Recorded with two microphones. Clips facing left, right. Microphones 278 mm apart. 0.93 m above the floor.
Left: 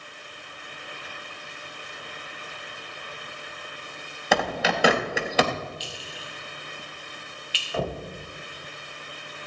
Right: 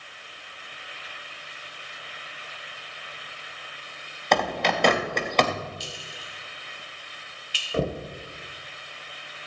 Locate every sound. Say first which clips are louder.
4.3 s a bird: even; 5° left (ahead or behind), 0.8 m
5.8 s a clink: left 1 dB; 55° right (ahead or behind), 1.9 m
7.7 s knocking: right 3 dB; 30° right (ahead or behind), 1.0 m